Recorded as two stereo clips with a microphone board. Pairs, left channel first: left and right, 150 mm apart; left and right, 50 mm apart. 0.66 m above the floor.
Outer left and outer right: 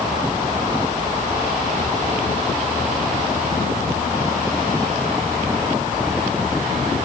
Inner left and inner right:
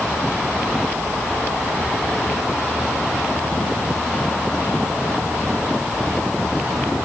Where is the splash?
I don't hear a splash.